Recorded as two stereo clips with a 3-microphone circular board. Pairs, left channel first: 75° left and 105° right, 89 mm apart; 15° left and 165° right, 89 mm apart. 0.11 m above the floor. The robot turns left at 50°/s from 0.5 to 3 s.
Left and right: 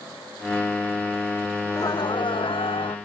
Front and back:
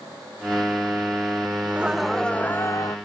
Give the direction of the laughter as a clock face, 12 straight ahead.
8 o'clock.